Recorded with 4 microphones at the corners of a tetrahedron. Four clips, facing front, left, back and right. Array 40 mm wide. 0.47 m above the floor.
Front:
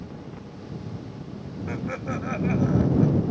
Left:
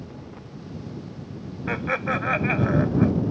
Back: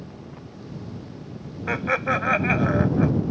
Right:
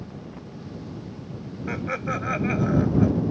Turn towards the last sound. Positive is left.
turn(degrees=155)